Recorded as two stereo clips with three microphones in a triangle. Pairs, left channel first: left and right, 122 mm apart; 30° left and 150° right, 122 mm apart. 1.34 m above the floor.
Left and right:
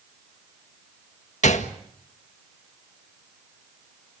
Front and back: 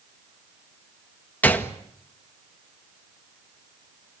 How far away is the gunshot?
About 1.9 m.